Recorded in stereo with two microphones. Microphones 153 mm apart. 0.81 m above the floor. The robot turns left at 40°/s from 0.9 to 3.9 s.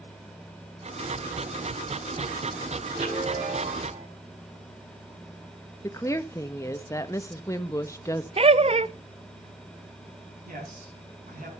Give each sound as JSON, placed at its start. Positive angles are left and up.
{"t": 2.9, "sound": "a chime", "azimuth_deg": -100, "distance_m": 6.0}
{"t": 5.8, "sound": "a woman speaking", "side_deg": 20, "distance_m": 0.8}
{"t": 8.4, "sound": "laughter", "side_deg": -40, "distance_m": 0.6}
{"t": 10.4, "sound": "a man speaking", "side_deg": -65, "distance_m": 6.5}